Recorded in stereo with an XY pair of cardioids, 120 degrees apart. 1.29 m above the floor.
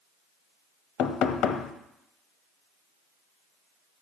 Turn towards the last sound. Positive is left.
turn(degrees=65)